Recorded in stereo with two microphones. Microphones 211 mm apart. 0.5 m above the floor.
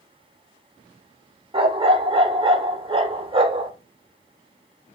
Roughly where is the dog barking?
Right.